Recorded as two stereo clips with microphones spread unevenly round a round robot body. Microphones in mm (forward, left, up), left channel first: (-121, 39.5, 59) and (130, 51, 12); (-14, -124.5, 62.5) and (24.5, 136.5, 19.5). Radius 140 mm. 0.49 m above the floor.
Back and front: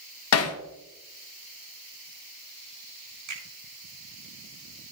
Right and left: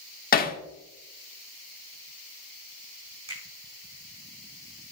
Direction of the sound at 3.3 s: 10° left.